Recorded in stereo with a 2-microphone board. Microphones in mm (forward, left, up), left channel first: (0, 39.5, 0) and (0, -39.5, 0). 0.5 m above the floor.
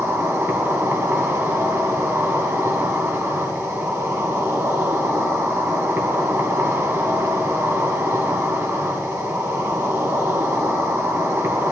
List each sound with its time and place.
0.0 s an insect: 35° right (ahead or behind), 1.7 m